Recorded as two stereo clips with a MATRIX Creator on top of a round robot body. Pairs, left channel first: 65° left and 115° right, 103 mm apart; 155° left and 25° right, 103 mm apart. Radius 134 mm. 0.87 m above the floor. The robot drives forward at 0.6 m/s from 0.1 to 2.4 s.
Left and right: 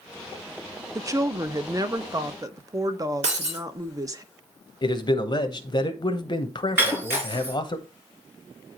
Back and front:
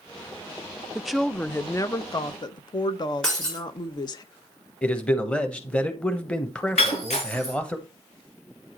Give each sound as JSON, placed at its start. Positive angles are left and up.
{"t": 0.9, "sound": "a woman speaking", "azimuth_deg": -95, "distance_m": 0.6}
{"t": 3.2, "sound": "breaking glass", "azimuth_deg": -115, "distance_m": 3.0}
{"t": 4.8, "sound": "a man speaking", "azimuth_deg": 85, "distance_m": 1.2}
{"t": 6.8, "sound": "breaking glass", "azimuth_deg": 175, "distance_m": 4.0}